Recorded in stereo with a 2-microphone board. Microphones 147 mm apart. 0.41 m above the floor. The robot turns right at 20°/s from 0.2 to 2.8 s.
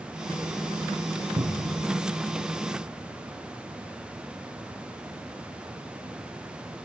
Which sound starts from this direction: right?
A cupboard door, at 1.4 s.